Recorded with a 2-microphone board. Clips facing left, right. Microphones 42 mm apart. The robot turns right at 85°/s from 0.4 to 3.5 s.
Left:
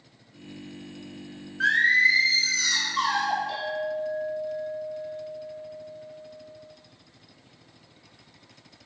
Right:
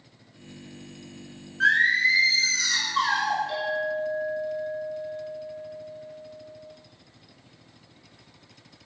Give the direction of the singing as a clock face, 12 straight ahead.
6 o'clock.